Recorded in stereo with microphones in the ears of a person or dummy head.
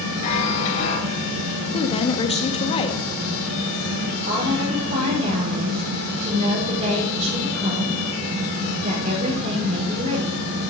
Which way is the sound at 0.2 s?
35° left (ahead or behind).